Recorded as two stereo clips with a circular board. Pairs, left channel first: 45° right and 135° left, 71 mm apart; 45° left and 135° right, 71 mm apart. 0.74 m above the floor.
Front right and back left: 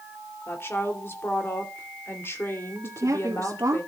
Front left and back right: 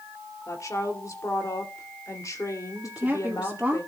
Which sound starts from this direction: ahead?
A woman speaking, at 0.5 s.